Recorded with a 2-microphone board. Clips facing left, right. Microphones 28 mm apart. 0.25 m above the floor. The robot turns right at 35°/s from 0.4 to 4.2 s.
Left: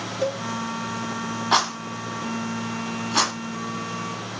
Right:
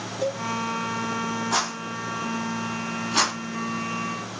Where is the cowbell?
20° left (ahead or behind), 1.3 m.